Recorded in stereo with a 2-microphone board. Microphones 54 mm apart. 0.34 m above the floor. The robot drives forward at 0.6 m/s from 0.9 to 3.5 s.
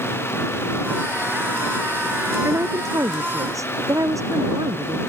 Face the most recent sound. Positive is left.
turn(degrees=-75)  # may be behind; listen again after turning